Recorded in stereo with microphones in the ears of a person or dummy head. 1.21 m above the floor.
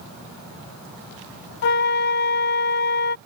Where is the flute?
50° left (ahead or behind).